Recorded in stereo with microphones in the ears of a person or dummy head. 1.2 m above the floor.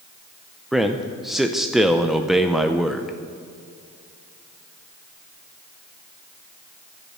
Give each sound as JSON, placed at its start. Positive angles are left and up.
{"t": 0.7, "sound": "a man speaking", "side_deg": 5, "distance_m": 0.5}